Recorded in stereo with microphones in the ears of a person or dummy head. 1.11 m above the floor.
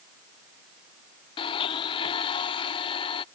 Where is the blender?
35° left (ahead or behind).